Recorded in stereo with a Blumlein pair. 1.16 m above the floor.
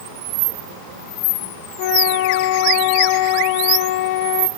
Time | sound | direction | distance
1.8 | a flute | 45° left | 0.7 m